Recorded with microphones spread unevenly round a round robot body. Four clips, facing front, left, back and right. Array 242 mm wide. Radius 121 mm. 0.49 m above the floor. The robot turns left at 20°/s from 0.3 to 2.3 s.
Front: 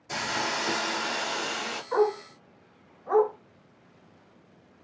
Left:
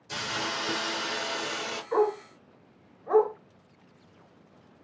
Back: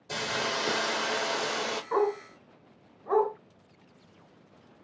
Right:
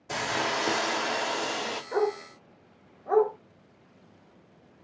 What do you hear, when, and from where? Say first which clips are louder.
0.1 s a hiss: right 4 dB, front 1 dB; 110° right, 0.8 m; by 1.8 s 140° right, 0.8 m
1.9 s a dog barking: left 3 dB, front 3 dB; 155° right, 1.8 m; by 3.3 s 160° right, 1.8 m